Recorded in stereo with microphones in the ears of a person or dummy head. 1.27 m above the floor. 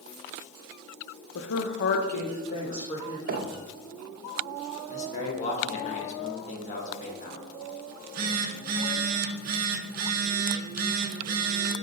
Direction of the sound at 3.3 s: 45° right (ahead or behind).